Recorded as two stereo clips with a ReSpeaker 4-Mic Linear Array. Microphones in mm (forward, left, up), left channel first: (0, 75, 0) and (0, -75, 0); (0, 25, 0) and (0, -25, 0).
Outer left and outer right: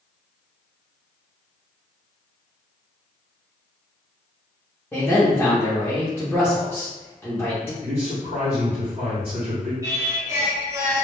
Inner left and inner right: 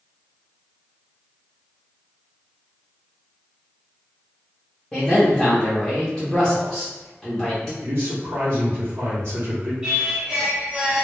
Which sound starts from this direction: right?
A man speaking, at 7.8 s.